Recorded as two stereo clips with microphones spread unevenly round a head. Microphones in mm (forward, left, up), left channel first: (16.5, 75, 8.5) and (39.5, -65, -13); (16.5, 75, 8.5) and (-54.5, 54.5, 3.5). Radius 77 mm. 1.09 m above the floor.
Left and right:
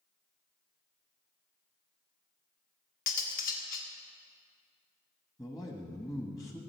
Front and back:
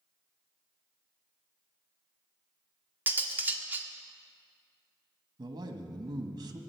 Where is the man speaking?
170° left, 1.4 m.